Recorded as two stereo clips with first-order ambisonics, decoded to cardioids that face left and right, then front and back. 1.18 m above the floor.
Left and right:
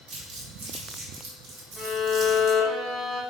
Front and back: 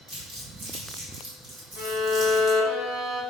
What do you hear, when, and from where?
0.1 s crumpling: 130° right, 3 m
1.8 s a violin: 175° right, 2.5 m